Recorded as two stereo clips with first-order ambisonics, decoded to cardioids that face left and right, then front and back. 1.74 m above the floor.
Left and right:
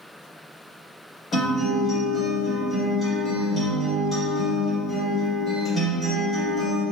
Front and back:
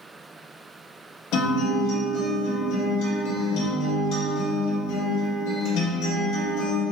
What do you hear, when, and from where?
1.3 s a guitar: 10° left, 1.7 m